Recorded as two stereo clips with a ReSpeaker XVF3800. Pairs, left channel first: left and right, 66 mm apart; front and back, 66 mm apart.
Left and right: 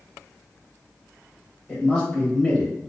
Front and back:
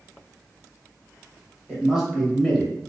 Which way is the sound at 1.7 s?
145° left.